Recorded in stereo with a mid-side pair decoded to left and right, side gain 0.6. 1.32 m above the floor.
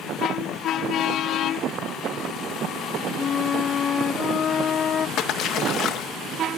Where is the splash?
55° left, 1.6 m.